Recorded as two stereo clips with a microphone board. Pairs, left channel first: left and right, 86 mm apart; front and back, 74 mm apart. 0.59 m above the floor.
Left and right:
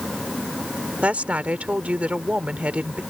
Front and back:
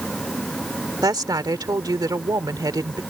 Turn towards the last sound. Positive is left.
turn(degrees=-165)